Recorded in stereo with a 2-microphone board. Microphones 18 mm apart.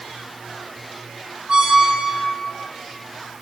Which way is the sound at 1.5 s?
55° right (ahead or behind).